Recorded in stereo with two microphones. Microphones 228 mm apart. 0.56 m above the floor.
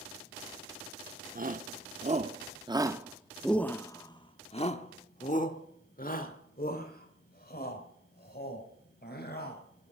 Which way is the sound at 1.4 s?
40° right (ahead or behind).